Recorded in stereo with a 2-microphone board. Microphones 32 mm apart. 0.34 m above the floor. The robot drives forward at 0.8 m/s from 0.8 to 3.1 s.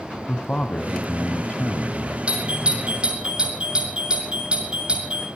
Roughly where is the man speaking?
Left.